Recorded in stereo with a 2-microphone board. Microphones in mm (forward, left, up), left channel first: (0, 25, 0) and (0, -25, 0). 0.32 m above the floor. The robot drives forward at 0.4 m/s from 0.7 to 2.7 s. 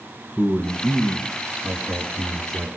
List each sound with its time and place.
0.4 s a man speaking: 5° left (ahead or behind), 2.5 m